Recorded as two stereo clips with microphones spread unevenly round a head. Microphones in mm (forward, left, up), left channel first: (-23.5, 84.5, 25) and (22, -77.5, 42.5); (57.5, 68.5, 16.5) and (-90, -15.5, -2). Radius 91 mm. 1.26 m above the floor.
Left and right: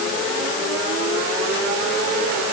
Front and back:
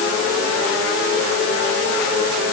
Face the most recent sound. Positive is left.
No sound to turn to.